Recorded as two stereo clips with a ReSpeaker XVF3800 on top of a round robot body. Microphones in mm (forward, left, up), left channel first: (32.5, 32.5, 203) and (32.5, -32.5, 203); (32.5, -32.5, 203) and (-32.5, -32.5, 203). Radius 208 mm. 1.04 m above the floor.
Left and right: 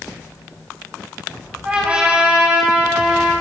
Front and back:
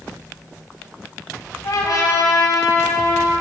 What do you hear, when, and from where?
1.6 s a trumpet: 20° right, 4 m